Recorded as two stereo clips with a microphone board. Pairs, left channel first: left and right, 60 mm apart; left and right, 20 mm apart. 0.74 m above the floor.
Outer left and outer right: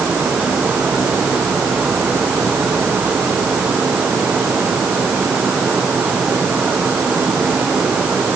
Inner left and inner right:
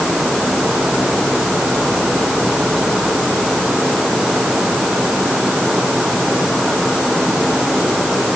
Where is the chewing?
No chewing in this recording.